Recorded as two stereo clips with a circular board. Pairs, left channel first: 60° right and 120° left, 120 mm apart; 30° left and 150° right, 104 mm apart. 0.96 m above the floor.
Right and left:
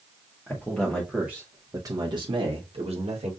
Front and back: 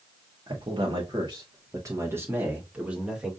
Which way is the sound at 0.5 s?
130° right.